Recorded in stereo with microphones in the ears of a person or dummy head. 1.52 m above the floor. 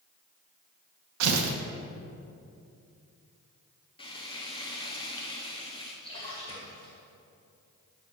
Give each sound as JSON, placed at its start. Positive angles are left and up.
{"t": 1.2, "sound": "tearing paper", "side_deg": -80, "distance_m": 0.7}
{"t": 4.0, "sound": "frying", "side_deg": 25, "distance_m": 0.7}
{"t": 6.0, "sound": "a splash", "side_deg": 30, "distance_m": 1.3}